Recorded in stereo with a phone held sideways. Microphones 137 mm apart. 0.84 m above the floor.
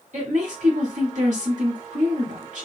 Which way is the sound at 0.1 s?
60° right (ahead or behind).